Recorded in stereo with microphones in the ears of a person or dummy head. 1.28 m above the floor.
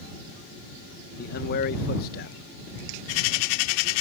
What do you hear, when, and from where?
1.2 s a man speaking: 50° left (ahead or behind)